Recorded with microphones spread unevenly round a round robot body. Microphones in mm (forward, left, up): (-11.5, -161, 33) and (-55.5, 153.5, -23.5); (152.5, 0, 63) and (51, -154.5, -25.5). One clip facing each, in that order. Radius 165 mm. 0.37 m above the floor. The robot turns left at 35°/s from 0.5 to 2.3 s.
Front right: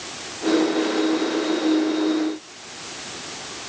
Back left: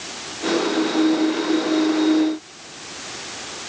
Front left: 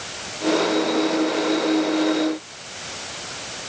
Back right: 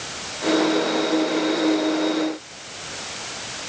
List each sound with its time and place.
Only background noise.